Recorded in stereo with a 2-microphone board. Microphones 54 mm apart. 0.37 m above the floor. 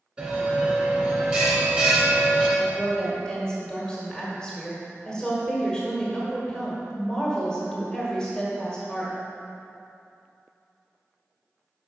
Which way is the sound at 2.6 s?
15° left (ahead or behind).